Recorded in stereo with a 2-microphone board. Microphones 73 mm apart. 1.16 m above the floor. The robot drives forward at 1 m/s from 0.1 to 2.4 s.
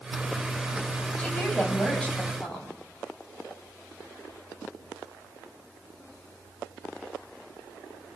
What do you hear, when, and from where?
1.2 s a woman speaking: 15° left (ahead or behind), 8 m